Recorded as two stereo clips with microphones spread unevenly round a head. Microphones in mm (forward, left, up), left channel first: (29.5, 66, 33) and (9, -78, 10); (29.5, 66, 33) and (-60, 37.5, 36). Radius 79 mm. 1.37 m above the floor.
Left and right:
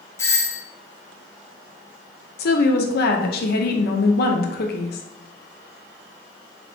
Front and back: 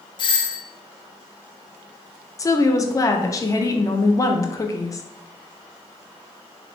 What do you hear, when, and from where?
0.2 s a doorbell: 5° left, 0.6 m
2.4 s a woman speaking: 70° left, 0.8 m